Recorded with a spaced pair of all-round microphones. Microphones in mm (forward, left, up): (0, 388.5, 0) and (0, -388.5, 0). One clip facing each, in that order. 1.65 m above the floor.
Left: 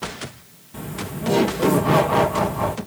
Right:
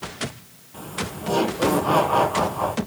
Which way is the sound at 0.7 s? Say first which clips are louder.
Left 2 dB; 55° left (ahead or behind).